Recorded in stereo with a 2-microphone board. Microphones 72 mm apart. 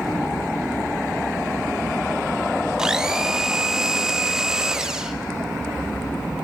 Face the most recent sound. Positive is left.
turn(degrees=-10)  # may be behind; listen again after turning